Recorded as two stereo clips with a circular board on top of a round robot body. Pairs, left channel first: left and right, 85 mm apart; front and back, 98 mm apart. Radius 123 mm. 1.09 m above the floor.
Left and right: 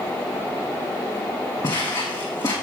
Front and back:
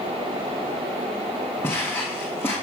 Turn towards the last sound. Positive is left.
turn(degrees=60)